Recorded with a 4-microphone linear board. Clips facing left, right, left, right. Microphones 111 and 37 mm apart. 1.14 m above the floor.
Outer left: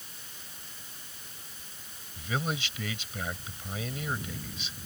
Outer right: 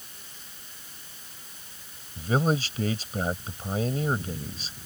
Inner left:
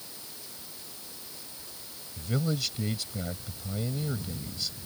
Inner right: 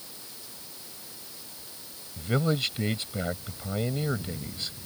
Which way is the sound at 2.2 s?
40° right (ahead or behind).